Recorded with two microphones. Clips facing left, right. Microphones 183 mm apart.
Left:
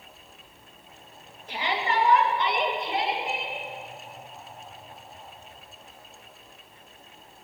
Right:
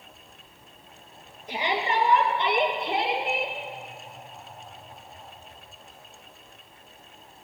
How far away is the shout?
About 2.5 m.